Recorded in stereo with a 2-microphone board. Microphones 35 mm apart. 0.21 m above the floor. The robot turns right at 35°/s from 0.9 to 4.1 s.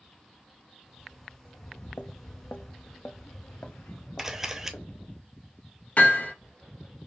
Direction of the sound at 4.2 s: 10° right (ahead or behind).